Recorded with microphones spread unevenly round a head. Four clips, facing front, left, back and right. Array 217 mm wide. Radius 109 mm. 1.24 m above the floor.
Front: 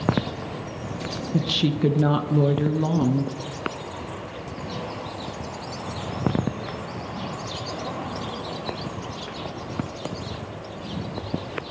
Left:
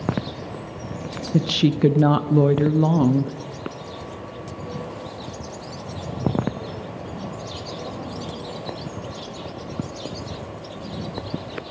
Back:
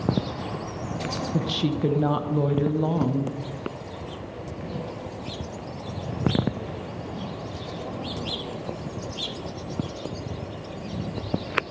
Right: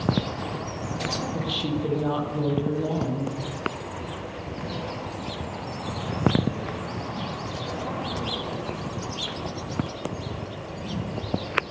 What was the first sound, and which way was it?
A woman speaking, 65° left.